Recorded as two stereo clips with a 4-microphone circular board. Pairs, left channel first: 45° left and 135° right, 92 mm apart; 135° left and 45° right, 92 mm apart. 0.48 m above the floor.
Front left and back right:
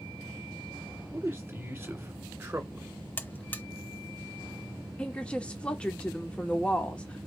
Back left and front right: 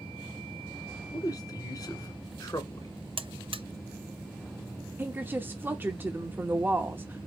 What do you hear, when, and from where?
1.1 s a man speaking: 165° left, 1.6 m
3.2 s a buzzer: 25° right, 0.6 m
5.0 s a woman speaking: 15° right, 0.7 m